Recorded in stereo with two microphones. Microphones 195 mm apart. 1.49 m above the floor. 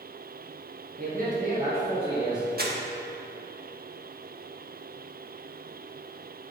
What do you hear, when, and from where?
1.0 s a man speaking: 50° right (ahead or behind), 1.7 m; by 2.5 s 20° right (ahead or behind), 2 m
2.6 s crumpling: 50° right (ahead or behind), 1.2 m